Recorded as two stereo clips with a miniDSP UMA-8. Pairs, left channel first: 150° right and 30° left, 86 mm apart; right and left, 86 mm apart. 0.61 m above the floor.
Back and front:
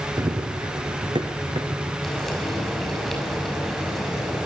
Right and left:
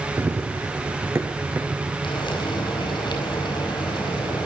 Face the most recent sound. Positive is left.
turn(degrees=-65)